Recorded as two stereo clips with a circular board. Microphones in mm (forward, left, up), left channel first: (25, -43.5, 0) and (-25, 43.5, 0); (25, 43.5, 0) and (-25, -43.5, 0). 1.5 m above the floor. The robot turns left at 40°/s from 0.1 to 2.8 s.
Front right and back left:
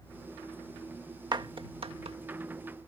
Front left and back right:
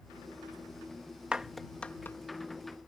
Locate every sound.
1.3 s a clap: 160° left; by 2.2 s 125° left